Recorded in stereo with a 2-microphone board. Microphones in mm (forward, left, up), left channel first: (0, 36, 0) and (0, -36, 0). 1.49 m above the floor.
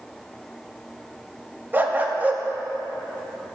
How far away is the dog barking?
About 0.9 m.